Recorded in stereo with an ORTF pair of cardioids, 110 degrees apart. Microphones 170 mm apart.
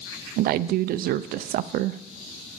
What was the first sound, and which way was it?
A woman speaking, 65° right.